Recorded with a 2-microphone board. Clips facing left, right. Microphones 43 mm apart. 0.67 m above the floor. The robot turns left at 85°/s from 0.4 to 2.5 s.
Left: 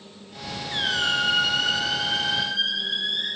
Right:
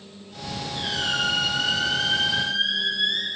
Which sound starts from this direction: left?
A squeak, at 0.7 s.